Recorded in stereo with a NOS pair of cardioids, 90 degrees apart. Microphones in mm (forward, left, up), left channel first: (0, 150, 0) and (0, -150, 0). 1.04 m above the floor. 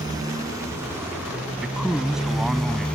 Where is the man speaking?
Straight ahead.